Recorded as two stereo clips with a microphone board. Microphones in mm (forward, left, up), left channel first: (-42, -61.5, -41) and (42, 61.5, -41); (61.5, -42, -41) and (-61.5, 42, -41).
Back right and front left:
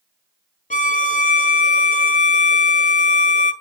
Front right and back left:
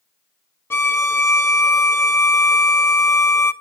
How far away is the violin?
About 0.6 m.